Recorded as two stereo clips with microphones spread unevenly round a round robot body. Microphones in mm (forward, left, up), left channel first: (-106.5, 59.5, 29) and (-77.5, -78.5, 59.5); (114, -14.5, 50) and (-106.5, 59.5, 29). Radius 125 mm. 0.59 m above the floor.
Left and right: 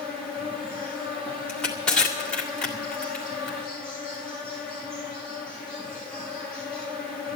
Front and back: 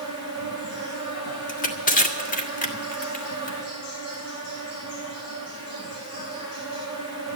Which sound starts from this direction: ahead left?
Crushing, at 1.5 s.